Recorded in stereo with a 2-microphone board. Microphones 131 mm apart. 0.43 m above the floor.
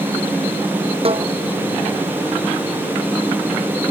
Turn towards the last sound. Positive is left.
turn(degrees=-50)  # may be behind; listen again after turning